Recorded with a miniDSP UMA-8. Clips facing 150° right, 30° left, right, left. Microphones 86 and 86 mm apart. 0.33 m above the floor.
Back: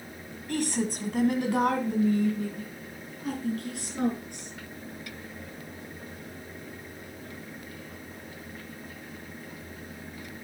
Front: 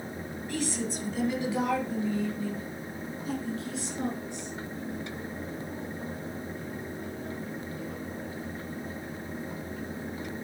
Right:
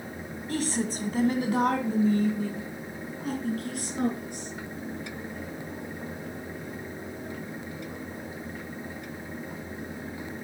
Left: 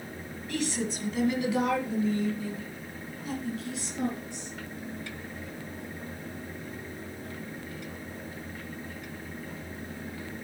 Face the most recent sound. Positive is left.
turn(degrees=-120)